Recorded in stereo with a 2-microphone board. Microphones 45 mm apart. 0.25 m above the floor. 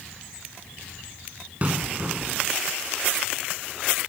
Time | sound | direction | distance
1.6 | an explosion | 35° right (ahead or behind) | ?